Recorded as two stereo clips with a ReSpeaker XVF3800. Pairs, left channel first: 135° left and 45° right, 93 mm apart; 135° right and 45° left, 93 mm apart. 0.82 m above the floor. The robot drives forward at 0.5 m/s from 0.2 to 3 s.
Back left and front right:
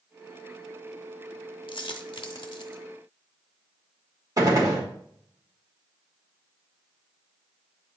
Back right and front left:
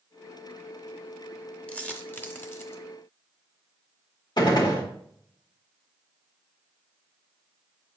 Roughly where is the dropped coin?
Behind left.